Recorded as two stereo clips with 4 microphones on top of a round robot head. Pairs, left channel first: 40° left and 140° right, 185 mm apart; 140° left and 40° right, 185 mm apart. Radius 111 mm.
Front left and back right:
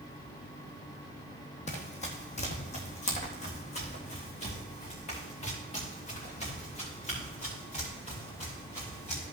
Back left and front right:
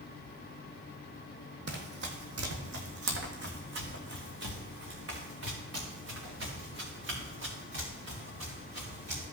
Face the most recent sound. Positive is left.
turn(degrees=-15)